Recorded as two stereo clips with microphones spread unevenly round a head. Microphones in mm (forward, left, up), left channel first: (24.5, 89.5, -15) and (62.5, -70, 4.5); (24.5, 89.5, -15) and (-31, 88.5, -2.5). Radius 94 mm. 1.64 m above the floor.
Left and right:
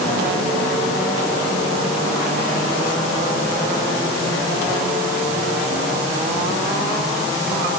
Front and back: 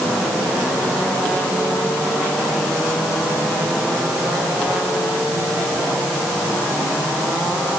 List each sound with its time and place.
Only background noise.